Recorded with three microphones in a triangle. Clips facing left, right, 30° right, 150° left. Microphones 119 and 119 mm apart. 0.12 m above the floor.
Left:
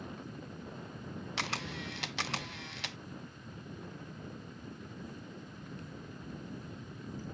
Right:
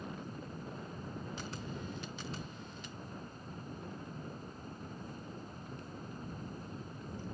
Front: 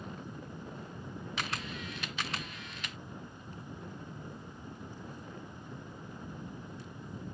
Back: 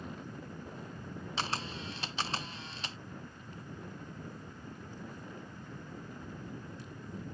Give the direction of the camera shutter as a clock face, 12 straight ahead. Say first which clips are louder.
Left 3 dB, back 3 dB; 9 o'clock.